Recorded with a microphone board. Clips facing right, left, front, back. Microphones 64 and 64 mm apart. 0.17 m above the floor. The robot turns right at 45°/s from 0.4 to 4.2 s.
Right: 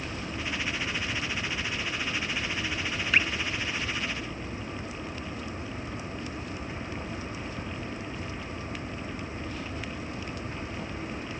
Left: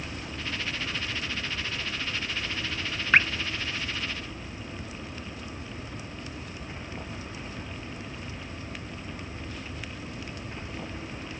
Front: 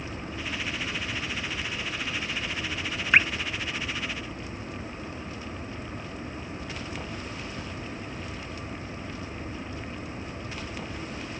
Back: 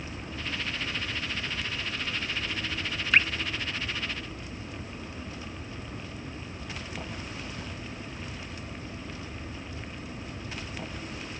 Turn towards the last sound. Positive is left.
turn(degrees=105)